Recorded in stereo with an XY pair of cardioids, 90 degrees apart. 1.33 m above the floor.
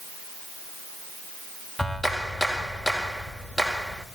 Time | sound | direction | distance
1.8 | a clap | 10° left | 5 m